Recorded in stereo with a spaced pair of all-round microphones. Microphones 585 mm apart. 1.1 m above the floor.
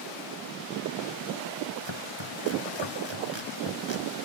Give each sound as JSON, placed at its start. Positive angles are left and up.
{"t": 1.9, "sound": "chopping", "side_deg": -50}